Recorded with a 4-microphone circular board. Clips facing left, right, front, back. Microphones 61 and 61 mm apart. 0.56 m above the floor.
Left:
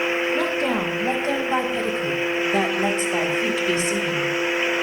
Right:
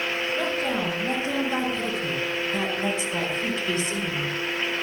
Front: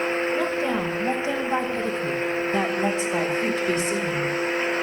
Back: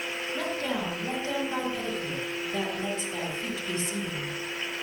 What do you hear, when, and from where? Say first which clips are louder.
0.3 s a woman speaking: left 4 dB, front 6 dB; 70° left, 5 m; by 4.3 s 20° left, 3 m